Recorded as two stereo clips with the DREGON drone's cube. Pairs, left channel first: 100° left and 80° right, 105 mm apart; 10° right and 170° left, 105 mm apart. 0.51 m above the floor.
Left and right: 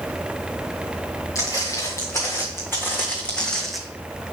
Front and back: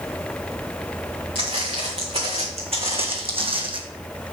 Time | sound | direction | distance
1.4 | footsteps | 155° left | 2.5 m